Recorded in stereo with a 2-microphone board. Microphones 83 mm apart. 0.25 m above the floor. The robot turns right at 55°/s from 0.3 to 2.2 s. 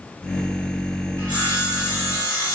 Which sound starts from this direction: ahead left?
Sawing, at 1.2 s.